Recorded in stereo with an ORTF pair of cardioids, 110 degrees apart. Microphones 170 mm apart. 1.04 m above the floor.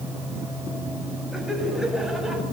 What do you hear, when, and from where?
0.0 s a fan: 15° right, 3.5 m
1.3 s laughter: straight ahead, 6.5 m